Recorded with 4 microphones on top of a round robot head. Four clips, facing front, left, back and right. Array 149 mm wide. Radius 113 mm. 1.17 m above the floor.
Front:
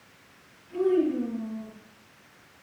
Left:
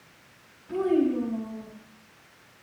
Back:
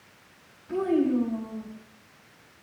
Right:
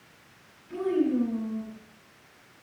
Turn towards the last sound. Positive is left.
turn(degrees=155)